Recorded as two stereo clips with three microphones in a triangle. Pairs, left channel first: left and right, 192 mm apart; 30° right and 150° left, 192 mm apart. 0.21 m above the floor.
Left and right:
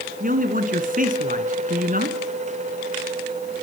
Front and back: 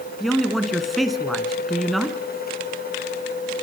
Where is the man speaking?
120° right, 3 m.